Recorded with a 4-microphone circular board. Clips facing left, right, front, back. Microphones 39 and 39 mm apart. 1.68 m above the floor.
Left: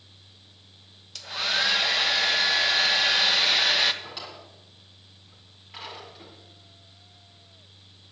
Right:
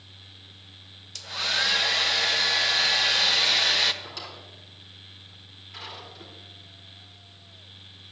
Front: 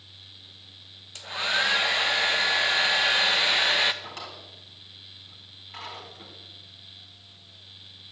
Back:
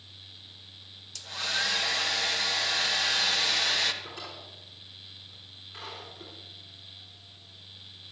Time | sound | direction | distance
1.1 | a hair dryer | 10° left | 0.9 m
4.0 | a drawer | 15° left | 6 m